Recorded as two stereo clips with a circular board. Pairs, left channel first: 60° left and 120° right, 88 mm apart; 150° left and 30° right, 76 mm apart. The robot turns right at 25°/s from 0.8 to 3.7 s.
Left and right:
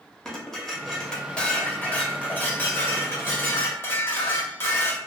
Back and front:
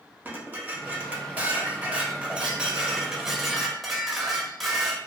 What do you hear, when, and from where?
0.2 s dishes clattering: 15° right, 0.5 m; by 5.0 s 55° left, 0.5 m